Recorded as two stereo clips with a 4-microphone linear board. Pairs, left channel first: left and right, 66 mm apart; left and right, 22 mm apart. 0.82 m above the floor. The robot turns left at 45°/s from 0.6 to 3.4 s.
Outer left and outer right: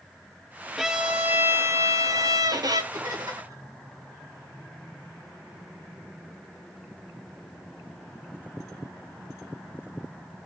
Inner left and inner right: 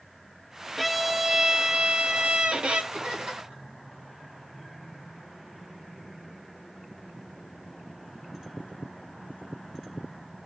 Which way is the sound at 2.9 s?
80° right.